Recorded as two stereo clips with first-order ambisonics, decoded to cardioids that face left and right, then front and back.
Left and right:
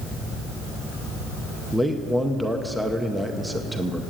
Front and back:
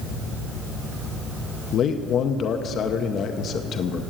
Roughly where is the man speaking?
Ahead.